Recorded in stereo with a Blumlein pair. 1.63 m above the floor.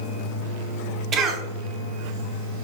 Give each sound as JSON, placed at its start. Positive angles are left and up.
{"t": 1.1, "sound": "a cough", "azimuth_deg": -30, "distance_m": 0.6}